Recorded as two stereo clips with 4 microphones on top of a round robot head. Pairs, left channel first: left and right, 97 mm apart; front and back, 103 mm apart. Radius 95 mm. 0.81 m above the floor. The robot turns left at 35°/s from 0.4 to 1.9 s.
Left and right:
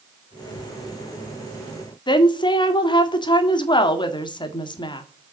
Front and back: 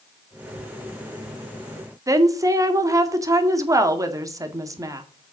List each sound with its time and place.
2.1 s a woman speaking: 125° left, 1.9 m